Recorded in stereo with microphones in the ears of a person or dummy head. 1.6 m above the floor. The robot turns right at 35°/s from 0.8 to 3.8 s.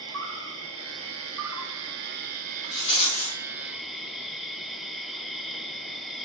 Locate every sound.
0.0 s an insect: 100° right, 0.8 m; by 6.2 s 5° left, 0.8 m
2.7 s a rattle: 30° left (ahead or behind), 2 m; by 3.4 s 50° left (ahead or behind), 2 m